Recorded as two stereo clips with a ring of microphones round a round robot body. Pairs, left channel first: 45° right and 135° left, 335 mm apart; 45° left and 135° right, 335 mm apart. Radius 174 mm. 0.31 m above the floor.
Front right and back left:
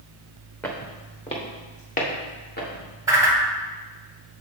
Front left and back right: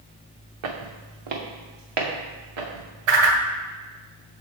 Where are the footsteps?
130° right, 1.6 m; by 2.9 s 110° right, 3.5 m.